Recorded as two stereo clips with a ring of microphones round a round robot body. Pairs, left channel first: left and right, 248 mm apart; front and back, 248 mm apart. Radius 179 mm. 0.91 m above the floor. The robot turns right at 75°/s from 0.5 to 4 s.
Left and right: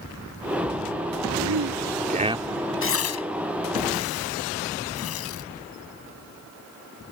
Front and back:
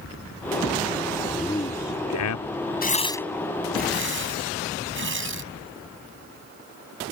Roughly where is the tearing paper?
Ahead left.